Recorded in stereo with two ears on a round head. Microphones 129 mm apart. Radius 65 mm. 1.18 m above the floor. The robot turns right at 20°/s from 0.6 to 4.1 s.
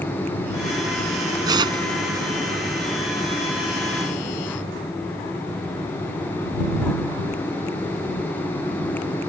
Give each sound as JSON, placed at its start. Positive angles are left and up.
{"t": 1.5, "sound": "tearing paper", "side_deg": -30}